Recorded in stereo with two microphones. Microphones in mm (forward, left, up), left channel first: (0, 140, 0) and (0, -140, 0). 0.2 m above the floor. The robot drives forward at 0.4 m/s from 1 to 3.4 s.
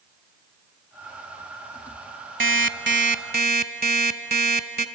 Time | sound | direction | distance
2.4 | an alarm clock | 45° right (ahead or behind) | 0.7 m